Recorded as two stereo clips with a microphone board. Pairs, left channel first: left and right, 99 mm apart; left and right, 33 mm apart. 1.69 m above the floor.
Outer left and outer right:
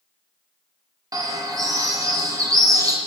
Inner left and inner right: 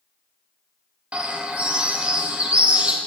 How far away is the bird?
About 0.8 m.